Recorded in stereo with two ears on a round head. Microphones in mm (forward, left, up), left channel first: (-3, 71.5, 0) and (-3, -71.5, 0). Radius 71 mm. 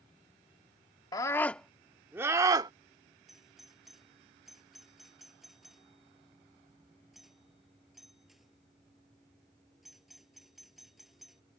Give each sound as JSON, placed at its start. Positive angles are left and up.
{"t": 1.1, "sound": "a scream", "side_deg": 25}
{"t": 3.3, "sound": "a doorbell", "side_deg": 0}